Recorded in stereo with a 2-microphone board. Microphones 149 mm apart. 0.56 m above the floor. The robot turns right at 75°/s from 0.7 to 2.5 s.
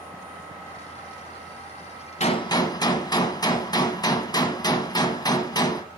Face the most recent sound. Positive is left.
turn(degrees=25)  # may be behind; listen again after turning